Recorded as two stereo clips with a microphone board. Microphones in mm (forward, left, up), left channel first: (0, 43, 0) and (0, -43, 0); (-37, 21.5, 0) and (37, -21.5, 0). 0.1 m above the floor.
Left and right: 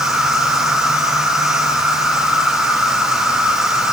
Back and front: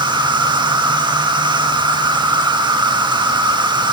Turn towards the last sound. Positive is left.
turn(degrees=-10)